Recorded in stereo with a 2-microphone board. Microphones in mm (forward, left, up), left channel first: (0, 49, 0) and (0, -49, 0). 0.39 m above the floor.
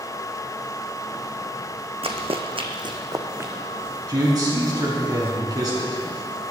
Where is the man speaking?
40° right (ahead or behind), 4.5 m.